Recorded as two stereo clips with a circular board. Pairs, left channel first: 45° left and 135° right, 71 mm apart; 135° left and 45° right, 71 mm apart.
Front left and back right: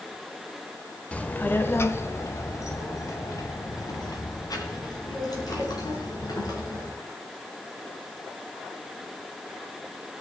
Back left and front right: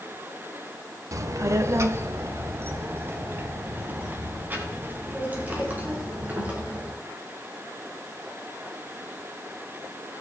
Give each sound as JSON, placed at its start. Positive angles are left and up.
{"t": 1.1, "sound": "a child speaking", "azimuth_deg": -25, "distance_m": 0.9}